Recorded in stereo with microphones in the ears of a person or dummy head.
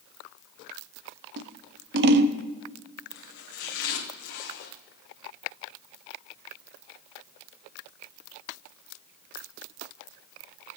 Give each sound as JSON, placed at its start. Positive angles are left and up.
{"t": 1.4, "sound": "scissors", "side_deg": -60, "distance_m": 0.7}
{"t": 3.1, "sound": "chopping", "side_deg": 60, "distance_m": 1.3}